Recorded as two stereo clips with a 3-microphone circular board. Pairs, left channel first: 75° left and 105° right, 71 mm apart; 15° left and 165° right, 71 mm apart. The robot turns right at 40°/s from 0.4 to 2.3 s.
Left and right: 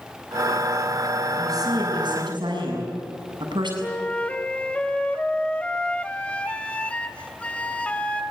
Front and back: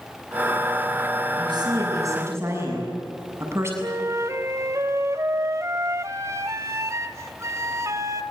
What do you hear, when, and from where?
1.4 s a woman speaking: 145° right, 7 m; by 3.7 s 110° right, 7 m
3.8 s a flute: 150° left, 1.2 m